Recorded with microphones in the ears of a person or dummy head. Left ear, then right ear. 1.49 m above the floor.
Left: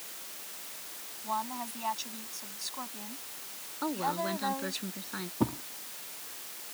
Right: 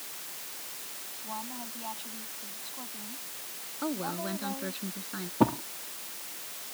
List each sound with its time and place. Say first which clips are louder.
1.2 s a woman speaking: left 7 dB; 65° left (ahead or behind)
3.8 s a woman speaking: left 3 dB; 25° left (ahead or behind)
5.4 s a thud: right 7 dB; 30° right (ahead or behind)